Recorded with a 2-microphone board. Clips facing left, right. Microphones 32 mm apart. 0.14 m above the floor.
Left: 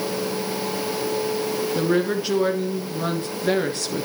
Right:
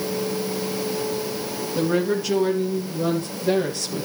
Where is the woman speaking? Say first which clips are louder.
Right 1 dB; 25° left (ahead or behind), 2 m; by 4.1 s 45° left (ahead or behind), 2.5 m.